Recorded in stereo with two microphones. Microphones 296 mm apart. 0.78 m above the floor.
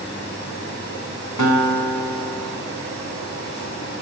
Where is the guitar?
75° left (ahead or behind), 4 m.